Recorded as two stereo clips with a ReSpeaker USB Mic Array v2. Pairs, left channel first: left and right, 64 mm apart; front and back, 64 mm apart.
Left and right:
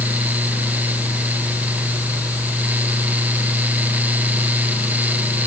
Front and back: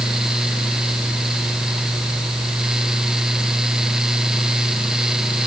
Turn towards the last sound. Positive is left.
No sound to turn to.